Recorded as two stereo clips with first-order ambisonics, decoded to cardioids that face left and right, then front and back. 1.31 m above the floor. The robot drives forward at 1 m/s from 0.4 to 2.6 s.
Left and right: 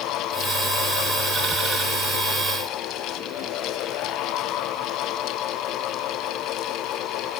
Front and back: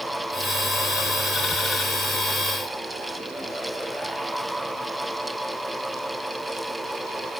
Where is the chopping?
I don't hear chopping.